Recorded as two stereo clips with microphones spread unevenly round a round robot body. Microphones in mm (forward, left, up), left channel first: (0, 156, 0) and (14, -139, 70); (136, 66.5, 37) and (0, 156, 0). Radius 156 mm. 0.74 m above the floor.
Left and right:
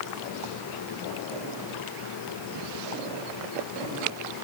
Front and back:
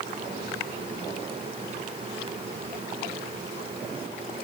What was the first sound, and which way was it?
Only background noise.